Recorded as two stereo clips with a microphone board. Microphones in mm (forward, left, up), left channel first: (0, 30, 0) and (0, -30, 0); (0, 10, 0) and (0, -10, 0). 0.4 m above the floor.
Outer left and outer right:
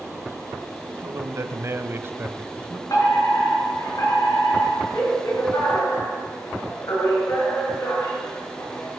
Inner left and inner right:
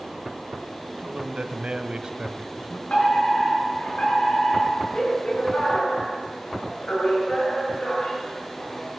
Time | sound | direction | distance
0.8 | a man speaking | 55° right (ahead or behind) | 3 m
2.9 | a fire alarm | 75° left (ahead or behind) | 9.5 m